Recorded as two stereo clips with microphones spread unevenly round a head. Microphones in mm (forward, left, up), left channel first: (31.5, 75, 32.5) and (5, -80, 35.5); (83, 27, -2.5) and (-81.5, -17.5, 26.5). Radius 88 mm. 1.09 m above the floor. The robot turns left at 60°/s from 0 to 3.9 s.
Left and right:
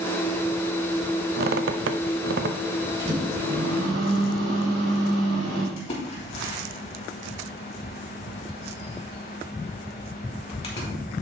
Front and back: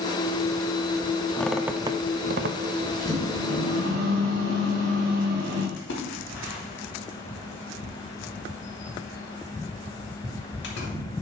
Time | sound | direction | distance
1.4 | a squeak | 70° right | 0.6 m
3.0 | a microwave | 70° right | 3.5 m
5.8 | a splash | 30° left | 3 m